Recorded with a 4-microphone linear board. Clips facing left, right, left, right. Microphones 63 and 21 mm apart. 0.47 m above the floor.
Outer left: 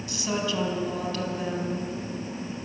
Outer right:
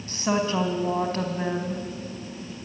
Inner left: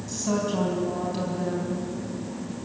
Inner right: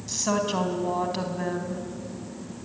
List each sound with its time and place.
0.1 s a woman speaking: 40° right (ahead or behind), 3.5 m